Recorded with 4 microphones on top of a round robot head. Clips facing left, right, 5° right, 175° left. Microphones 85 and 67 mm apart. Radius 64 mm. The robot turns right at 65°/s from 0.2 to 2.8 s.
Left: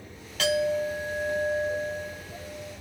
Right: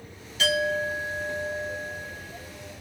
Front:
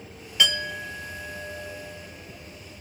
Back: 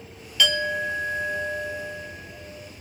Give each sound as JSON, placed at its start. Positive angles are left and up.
{"t": 0.4, "sound": "a clink", "azimuth_deg": 50, "distance_m": 0.8}